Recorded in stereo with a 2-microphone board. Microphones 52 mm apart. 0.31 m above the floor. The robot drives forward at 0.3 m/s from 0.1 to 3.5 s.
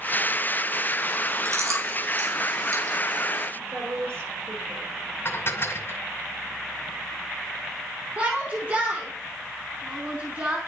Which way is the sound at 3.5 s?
60° right (ahead or behind).